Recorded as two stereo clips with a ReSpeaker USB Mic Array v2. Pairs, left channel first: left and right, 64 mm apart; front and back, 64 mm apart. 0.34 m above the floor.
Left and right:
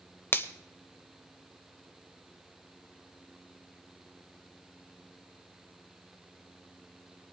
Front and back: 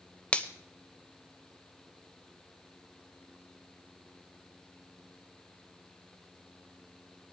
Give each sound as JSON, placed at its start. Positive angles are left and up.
{"t": 0.3, "sound": "a finger snap", "azimuth_deg": 60, "distance_m": 0.8}